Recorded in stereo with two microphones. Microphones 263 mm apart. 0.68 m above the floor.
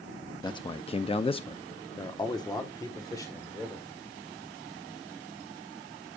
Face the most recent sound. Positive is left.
turn(degrees=10)  # may be behind; listen again after turning